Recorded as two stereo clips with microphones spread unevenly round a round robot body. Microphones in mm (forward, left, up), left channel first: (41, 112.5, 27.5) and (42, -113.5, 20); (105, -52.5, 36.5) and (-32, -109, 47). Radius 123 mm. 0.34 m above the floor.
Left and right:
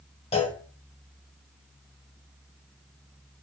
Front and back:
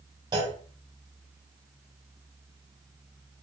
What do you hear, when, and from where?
0.3 s a clunk: 145° left, 0.8 m